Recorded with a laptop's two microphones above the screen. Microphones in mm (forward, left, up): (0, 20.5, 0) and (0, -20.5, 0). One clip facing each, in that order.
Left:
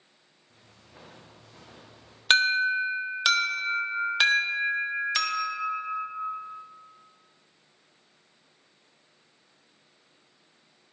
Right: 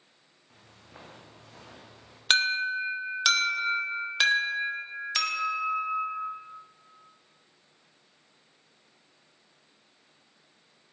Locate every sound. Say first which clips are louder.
0.5 s footsteps: right 2 dB; 50° right (ahead or behind), 4 m; by 2.2 s 30° right (ahead or behind), 4.5 m
2.3 s an alarm: left 3 dB; 10° left (ahead or behind), 1.4 m